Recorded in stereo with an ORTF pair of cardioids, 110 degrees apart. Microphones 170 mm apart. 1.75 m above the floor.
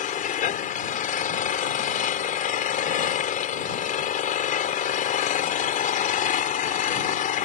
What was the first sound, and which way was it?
An engine running, 50° left.